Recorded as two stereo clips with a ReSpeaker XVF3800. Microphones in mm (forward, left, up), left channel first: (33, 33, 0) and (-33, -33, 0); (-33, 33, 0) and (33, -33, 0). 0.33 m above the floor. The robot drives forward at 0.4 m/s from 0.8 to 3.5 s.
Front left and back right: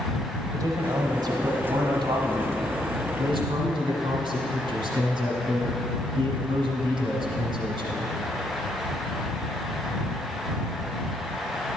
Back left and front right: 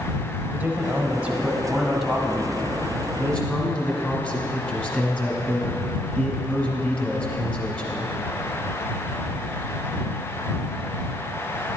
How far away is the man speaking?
About 1.1 m.